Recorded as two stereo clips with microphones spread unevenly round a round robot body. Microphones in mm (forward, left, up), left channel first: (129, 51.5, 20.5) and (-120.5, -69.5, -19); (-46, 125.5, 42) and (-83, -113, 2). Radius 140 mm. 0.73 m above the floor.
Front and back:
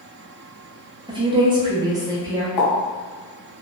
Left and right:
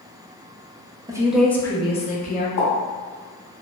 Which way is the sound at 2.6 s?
25° left.